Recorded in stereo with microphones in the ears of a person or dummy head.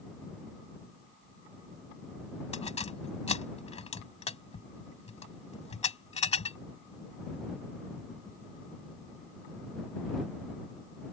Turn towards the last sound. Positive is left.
turn(degrees=30)  # may be behind; listen again after turning